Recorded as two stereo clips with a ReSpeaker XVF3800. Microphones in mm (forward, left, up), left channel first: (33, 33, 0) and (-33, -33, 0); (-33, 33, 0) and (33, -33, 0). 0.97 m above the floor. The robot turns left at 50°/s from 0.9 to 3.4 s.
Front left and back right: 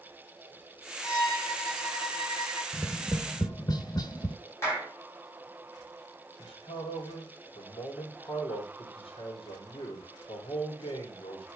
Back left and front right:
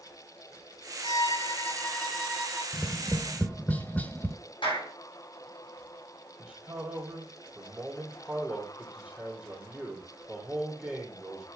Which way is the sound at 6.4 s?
30° left.